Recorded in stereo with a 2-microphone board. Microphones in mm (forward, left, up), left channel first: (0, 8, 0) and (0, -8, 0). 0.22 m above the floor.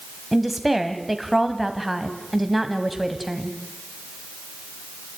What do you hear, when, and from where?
0.3 s a woman speaking: centre (ahead or behind), 1.4 m